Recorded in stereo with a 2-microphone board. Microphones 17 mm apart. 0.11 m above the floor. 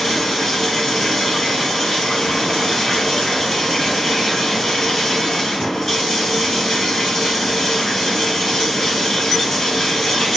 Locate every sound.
0.0 s running water: 35° left (ahead or behind), 1.7 m